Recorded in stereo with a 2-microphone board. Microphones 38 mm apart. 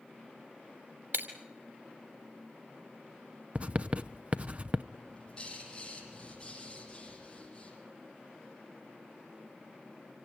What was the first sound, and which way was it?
Breaking glass, 60° right (ahead or behind).